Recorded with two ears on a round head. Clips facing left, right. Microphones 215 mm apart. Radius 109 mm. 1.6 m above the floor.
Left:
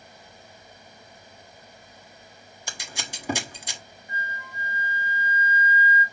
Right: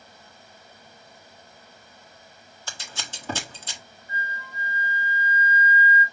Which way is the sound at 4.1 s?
30° right (ahead or behind).